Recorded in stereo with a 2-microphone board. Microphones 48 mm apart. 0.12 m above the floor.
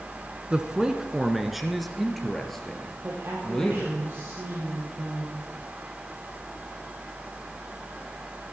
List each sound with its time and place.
0.5 s a man speaking: 20° right (ahead or behind), 1.1 m; by 4.0 s 10° left (ahead or behind), 3 m
3.0 s a woman speaking: 45° right (ahead or behind), 3 m